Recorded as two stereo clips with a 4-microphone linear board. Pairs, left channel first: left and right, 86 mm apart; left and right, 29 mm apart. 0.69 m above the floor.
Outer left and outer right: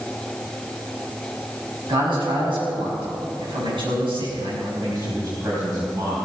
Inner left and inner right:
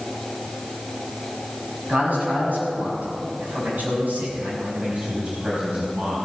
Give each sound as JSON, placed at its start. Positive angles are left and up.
{"t": 1.9, "sound": "a man speaking", "side_deg": -75, "distance_m": 6.5}
{"t": 4.8, "sound": "a man speaking", "side_deg": -45, "distance_m": 4.5}